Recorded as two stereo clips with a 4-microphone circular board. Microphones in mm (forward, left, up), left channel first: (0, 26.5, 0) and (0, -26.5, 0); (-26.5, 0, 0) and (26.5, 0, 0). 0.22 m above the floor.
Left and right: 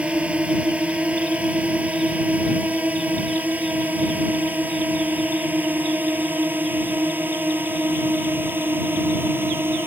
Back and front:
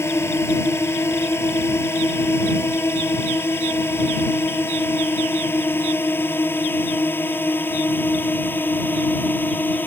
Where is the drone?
155° right; by 9.9 s 135° right.